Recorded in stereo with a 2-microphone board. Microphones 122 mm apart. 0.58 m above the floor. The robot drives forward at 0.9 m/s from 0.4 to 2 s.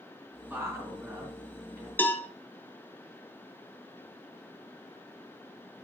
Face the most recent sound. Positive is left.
turn(degrees=15)  # may be behind; listen again after turning